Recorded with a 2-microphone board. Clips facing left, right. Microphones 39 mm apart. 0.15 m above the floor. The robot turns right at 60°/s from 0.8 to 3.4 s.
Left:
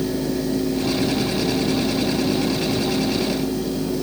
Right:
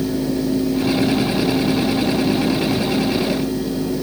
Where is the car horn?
No car horn in this recording.